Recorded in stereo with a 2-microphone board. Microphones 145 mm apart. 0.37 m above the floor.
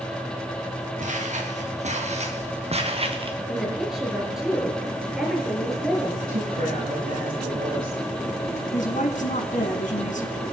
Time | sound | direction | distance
1.0 | footsteps | 55° right (ahead or behind) | 5 m
3.5 | a woman speaking | 5° right (ahead or behind) | 5.5 m
6.3 | a woman speaking | 80° right | 8.5 m
8.7 | a woman speaking | 65° left (ahead or behind) | 2.5 m